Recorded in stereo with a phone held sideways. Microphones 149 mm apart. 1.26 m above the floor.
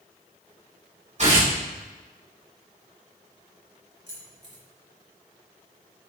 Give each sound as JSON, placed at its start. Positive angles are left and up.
{"t": 1.2, "sound": "tearing paper", "side_deg": -50, "distance_m": 3.5}
{"t": 4.1, "sound": "keys jangling", "side_deg": -40, "distance_m": 3.0}